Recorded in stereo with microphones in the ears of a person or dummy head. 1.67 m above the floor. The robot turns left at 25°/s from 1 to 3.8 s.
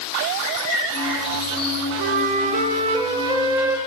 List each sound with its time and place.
0.4 s a bird: 45° left (ahead or behind), 2.5 m; by 1.8 s 30° left (ahead or behind), 2.5 m
2.0 s a flute: 120° right, 0.6 m; by 3.8 s 165° right, 0.6 m